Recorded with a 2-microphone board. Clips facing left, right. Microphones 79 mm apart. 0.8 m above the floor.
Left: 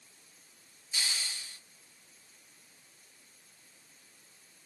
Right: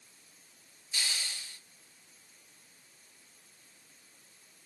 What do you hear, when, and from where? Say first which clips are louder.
0.9 s a hiss: even; 15° left (ahead or behind), 2 m